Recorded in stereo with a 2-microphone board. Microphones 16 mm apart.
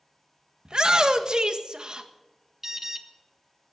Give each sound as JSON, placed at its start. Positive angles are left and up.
{"t": 0.7, "sound": "a shout", "side_deg": -45, "distance_m": 1.5}
{"t": 2.6, "sound": "an alarm", "side_deg": -20, "distance_m": 1.3}